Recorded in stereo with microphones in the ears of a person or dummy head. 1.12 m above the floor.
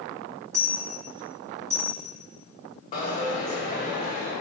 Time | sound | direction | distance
0.5 | a dropped coin | 10° right (ahead or behind) | 2.0 m
2.9 | a dropped coin | 45° left (ahead or behind) | 1.4 m